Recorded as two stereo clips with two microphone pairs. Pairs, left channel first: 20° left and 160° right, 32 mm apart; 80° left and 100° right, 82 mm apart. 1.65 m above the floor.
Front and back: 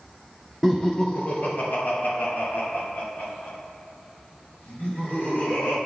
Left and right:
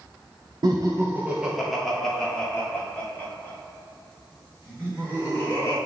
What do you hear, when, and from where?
0.6 s laughter: 65° right, 0.6 m; by 5.8 s 20° left, 4.5 m